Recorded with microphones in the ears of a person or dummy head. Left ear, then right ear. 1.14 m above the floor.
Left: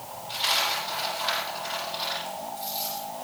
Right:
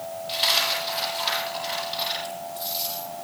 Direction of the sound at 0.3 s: 50° right (ahead or behind).